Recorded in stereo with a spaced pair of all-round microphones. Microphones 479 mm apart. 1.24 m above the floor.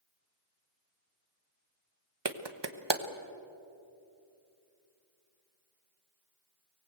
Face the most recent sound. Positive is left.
turn(degrees=-60)  # may be behind; listen again after turning